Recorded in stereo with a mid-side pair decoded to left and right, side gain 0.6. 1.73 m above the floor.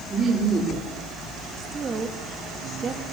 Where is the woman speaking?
25° right, 3.5 m.